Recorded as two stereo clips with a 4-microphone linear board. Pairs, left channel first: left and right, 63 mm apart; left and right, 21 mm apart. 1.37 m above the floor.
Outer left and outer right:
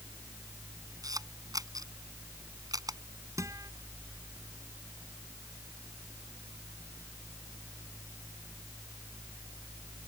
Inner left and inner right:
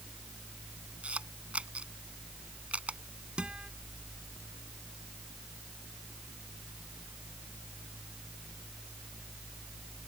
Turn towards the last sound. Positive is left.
turn(degrees=-60)  # may be behind; listen again after turning